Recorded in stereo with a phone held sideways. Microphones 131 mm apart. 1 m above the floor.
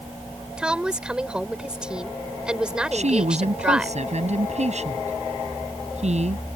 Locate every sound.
0.6 s a woman speaking: 5° right (ahead or behind)
2.9 s a woman speaking: 60° right (ahead or behind)